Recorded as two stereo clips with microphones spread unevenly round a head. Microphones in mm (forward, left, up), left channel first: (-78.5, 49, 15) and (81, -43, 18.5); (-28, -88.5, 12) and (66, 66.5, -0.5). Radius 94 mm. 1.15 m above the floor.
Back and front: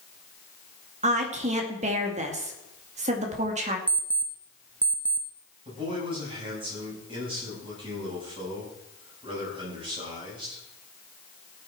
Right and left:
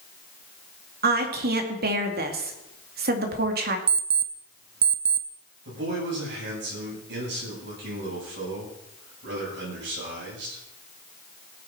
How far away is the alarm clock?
About 0.6 m.